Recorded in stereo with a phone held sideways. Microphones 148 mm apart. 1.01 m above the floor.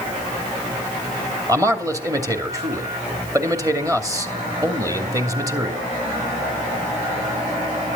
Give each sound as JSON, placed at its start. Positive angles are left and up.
{"t": 1.5, "sound": "a man speaking", "side_deg": -20, "distance_m": 2.5}